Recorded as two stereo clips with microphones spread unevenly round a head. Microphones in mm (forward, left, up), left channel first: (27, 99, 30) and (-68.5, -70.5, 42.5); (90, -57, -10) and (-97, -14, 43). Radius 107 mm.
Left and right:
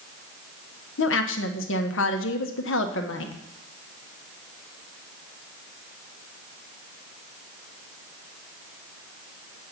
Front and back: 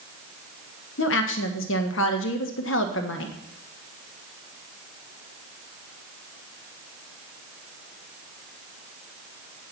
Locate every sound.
1.0 s a woman speaking: 25° left, 1.2 m